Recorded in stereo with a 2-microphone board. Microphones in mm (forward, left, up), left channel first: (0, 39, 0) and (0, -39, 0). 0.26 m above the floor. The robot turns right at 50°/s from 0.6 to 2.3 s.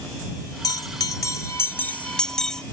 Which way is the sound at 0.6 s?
90° left.